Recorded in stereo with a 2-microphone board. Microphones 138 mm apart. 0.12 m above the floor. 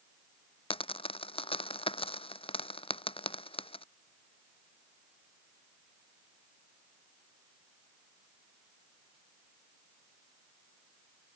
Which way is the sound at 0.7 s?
45° left (ahead or behind).